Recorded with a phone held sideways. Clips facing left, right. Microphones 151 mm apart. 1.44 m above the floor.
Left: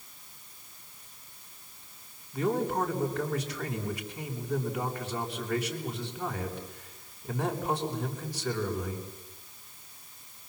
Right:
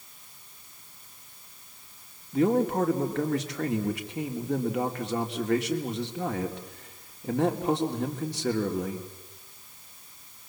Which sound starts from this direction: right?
A man speaking, at 2.3 s.